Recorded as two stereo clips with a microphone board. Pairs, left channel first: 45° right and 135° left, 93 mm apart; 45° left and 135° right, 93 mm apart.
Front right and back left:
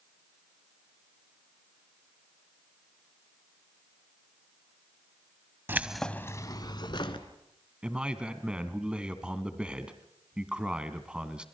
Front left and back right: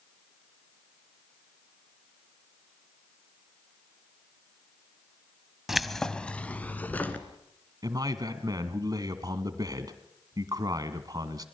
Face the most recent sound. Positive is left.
turn(degrees=-150)